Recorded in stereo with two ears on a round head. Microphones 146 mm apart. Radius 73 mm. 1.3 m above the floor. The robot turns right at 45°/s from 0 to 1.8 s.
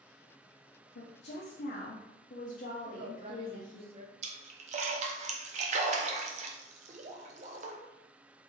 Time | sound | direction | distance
0.9 | a woman speaking | 90° left | 0.6 m
2.9 | a woman speaking | 35° right (ahead or behind) | 0.8 m
4.2 | a splash | 45° right (ahead or behind) | 0.6 m